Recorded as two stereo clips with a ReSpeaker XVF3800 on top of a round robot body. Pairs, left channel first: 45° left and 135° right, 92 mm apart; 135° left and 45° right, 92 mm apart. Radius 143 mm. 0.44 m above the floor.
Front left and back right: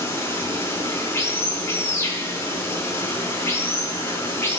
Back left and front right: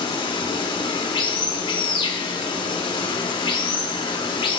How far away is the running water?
About 5 m.